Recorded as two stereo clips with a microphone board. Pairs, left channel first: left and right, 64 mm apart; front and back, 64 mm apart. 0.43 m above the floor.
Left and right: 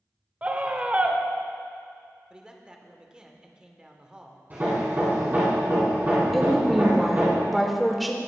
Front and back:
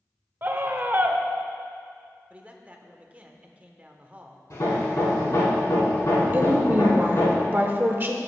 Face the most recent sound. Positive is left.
turn(degrees=-175)